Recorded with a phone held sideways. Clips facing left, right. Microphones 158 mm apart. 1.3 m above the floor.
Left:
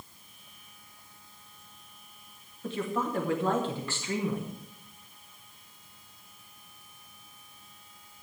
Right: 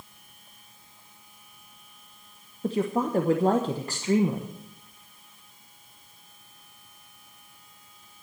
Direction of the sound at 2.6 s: 40° right (ahead or behind).